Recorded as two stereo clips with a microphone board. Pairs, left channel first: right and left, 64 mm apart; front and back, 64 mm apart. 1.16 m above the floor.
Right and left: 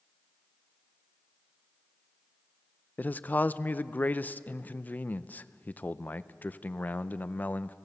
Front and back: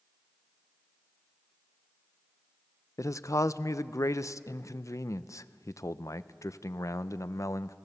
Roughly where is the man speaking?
Ahead right.